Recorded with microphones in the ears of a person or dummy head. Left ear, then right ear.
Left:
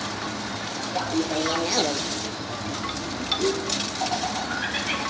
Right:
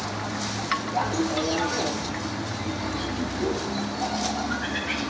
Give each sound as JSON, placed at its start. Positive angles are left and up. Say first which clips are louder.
{"t": 0.9, "sound": "laughter", "louder": "left 3 dB", "side_deg": -10, "distance_m": 1.4}